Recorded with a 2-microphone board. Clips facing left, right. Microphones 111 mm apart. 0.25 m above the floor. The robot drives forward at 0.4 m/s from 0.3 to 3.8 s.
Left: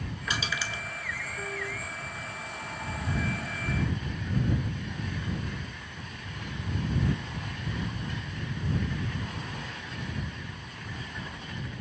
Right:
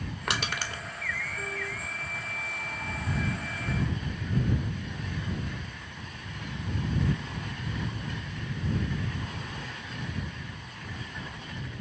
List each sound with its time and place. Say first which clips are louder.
0.3 s crushing: right 1 dB; 70° right (ahead or behind), 0.5 m; by 0.8 s 50° right (ahead or behind), 0.6 m